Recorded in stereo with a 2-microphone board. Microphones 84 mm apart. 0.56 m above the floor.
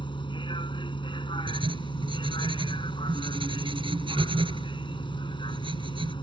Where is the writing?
85° right.